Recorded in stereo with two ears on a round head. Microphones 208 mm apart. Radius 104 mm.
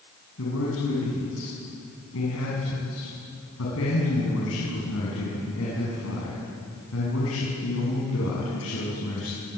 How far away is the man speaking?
About 7 m.